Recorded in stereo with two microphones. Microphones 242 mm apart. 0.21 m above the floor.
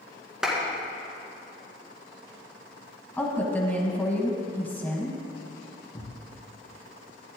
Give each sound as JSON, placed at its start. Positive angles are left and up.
{"t": 0.4, "sound": "a clap", "side_deg": 0, "distance_m": 2.5}
{"t": 3.2, "sound": "a woman speaking", "side_deg": 5, "distance_m": 1.4}
{"t": 5.9, "sound": "a thud", "side_deg": 15, "distance_m": 3.5}